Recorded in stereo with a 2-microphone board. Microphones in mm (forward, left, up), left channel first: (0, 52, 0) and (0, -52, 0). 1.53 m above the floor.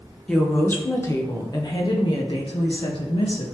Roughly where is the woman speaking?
Centre.